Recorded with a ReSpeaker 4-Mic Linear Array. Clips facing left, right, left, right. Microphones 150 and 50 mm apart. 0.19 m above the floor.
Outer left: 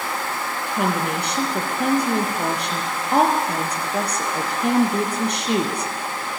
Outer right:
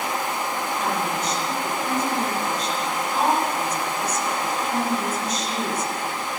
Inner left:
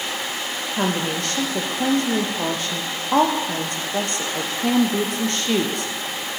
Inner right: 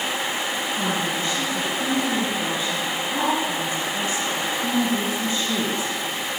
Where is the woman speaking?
75° left (ahead or behind), 5 m.